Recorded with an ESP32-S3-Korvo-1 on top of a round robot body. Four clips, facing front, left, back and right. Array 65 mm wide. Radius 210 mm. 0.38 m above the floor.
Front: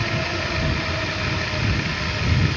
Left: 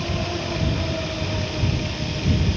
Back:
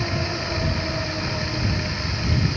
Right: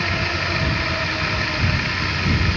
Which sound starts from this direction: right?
Running water, at 0.0 s.